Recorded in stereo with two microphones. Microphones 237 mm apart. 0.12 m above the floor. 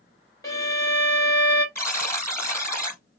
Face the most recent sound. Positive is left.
turn(degrees=10)  # may be behind; listen again after turning